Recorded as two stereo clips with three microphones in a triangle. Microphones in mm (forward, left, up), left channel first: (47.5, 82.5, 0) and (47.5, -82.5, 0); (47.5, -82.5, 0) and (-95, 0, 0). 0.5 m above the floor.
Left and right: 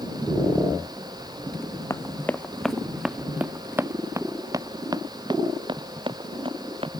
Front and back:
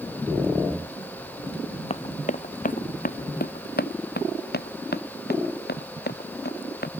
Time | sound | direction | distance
1.9 | running footsteps | 15° left | ?